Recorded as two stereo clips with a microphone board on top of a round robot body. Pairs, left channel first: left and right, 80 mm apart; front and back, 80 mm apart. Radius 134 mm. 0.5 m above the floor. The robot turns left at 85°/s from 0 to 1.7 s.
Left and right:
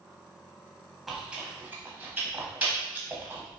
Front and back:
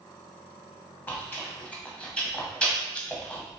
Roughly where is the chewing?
Ahead.